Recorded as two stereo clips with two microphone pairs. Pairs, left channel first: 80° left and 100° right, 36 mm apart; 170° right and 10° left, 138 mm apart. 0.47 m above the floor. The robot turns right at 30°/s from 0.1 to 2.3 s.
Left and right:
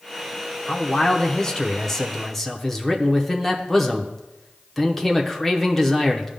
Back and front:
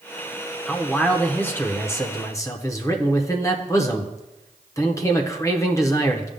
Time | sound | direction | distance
0.7 | a man speaking | 105° left | 0.8 m